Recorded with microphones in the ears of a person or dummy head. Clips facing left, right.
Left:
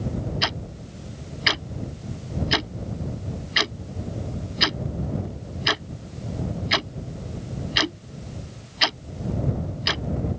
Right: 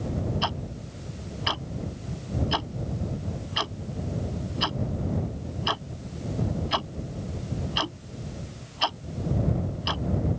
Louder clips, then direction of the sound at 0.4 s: Even; 35° left (ahead or behind).